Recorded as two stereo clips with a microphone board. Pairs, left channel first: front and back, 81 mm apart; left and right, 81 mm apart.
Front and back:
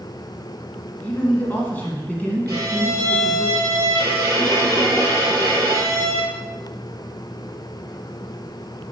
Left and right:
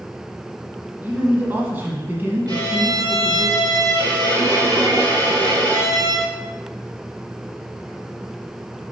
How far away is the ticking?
No ticking in this recording.